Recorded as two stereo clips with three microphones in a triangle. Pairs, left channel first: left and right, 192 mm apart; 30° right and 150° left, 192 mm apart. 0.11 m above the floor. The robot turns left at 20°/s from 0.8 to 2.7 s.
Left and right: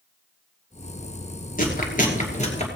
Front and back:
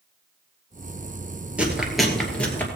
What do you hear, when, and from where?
1.6 s chewing: 70° left, 2.5 m; by 2.7 s 50° left, 2.5 m